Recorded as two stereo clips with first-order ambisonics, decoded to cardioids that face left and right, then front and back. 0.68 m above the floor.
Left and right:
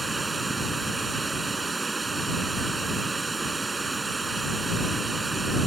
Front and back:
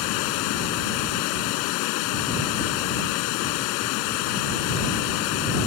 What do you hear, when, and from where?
0.0 s running water: 10° right